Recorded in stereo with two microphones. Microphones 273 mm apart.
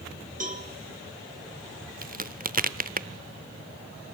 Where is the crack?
30° right (ahead or behind), 0.7 m.